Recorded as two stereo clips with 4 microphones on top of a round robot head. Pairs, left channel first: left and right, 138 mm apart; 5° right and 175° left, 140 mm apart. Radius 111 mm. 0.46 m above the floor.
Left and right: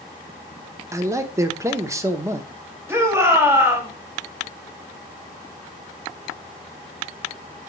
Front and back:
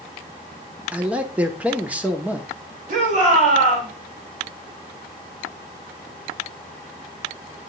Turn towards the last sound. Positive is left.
turn(degrees=-160)